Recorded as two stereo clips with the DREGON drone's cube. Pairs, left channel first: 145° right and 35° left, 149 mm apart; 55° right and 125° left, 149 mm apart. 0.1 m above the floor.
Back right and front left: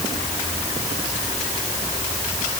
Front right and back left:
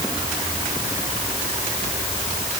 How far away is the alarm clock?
No alarm clock in this recording.